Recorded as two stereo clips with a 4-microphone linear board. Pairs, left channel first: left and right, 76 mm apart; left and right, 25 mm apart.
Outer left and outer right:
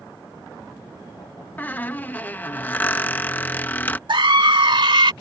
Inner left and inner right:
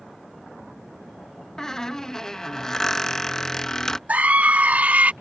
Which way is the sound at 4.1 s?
80° right.